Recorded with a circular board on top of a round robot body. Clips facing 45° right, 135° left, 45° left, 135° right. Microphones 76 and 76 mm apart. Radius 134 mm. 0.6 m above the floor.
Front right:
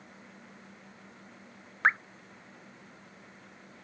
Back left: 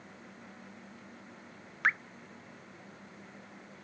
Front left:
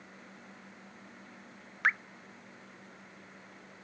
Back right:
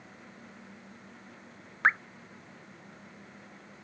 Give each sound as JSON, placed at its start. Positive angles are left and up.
{"t": 1.8, "sound": "dripping", "azimuth_deg": -90}